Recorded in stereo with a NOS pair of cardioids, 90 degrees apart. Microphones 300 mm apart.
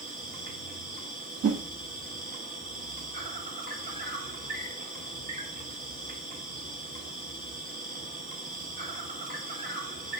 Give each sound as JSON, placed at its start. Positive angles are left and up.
{"t": 0.0, "sound": "an insect", "azimuth_deg": -30, "distance_m": 1.9}
{"t": 1.4, "sound": "a whoosh", "azimuth_deg": -55, "distance_m": 1.3}